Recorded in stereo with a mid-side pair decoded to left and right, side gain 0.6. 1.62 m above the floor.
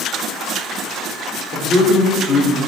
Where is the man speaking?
50° left, 2.5 m; by 2.6 s 25° left, 3.5 m.